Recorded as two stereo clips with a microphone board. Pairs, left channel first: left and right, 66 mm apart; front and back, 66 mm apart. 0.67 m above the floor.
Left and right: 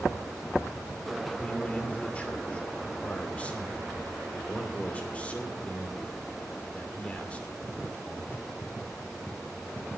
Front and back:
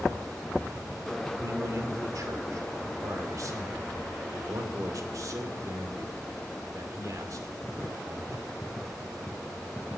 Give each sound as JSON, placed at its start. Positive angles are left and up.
{"t": 1.4, "sound": "a man speaking", "azimuth_deg": 160, "distance_m": 2.5}